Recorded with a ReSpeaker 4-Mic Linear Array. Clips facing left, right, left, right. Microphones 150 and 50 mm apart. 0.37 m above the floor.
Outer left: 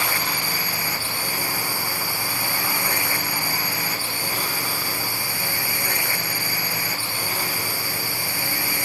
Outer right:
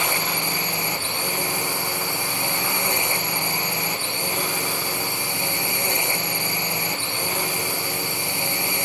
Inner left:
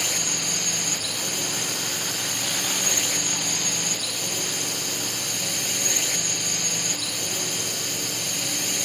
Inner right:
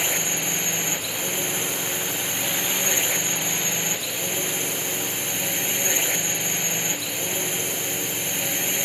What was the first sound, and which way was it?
A drone, 20° right (ahead or behind).